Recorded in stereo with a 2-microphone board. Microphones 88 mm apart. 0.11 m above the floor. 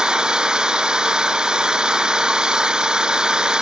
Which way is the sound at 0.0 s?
10° right (ahead or behind).